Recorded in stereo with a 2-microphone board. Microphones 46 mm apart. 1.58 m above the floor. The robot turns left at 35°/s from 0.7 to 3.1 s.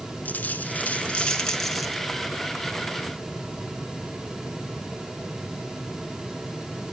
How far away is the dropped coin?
About 3 m.